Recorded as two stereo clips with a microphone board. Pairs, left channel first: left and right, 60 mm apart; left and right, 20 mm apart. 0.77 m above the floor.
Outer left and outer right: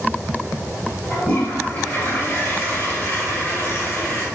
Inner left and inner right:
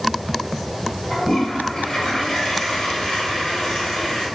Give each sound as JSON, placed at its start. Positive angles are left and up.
{"t": 1.1, "sound": "a toilet flushing", "side_deg": 35, "distance_m": 1.7}